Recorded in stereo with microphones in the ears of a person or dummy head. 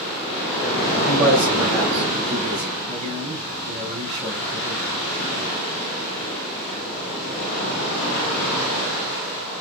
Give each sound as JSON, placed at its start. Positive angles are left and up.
{"t": 1.1, "sound": "a man speaking", "side_deg": -35, "distance_m": 6.0}
{"t": 2.9, "sound": "a man speaking", "side_deg": -35, "distance_m": 6.5}